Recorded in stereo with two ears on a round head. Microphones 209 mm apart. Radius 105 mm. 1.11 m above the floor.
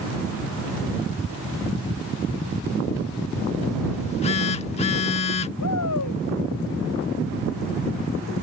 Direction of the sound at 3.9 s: 30° left (ahead or behind).